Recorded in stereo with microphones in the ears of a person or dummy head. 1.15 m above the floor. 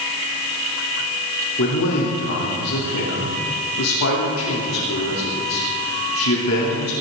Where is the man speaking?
80° left, 3.5 m.